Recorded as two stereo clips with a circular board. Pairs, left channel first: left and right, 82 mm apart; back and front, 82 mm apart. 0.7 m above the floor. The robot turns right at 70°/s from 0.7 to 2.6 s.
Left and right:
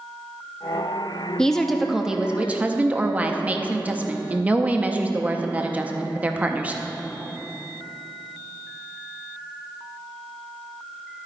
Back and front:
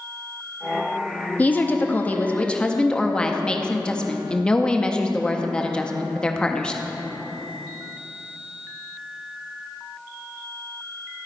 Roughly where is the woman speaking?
Behind left.